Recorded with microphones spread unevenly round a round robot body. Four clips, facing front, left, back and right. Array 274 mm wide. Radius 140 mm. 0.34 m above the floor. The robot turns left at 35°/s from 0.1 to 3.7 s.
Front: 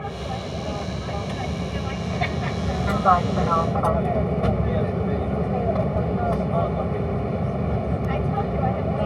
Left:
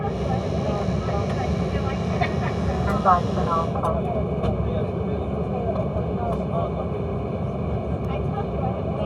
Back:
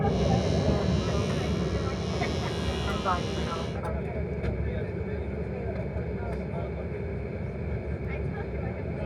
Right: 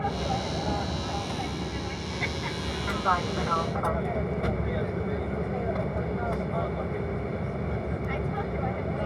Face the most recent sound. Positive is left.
turn(degrees=20)